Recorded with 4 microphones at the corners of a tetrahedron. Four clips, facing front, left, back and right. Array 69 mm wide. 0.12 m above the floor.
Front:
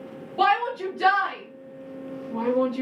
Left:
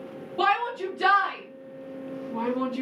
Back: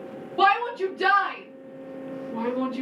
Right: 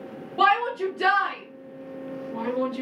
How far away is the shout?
About 1.5 m.